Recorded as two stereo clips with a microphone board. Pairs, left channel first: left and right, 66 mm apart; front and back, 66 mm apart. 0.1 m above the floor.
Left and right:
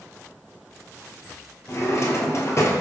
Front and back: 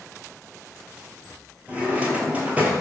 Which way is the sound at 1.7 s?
120° left.